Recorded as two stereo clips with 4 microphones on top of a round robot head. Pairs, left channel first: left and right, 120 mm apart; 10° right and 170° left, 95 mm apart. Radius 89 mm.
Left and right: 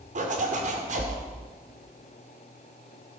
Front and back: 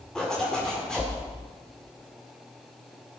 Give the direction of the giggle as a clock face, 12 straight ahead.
I don't hear a giggle.